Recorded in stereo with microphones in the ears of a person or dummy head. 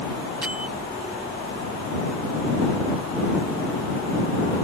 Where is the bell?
5° right (ahead or behind).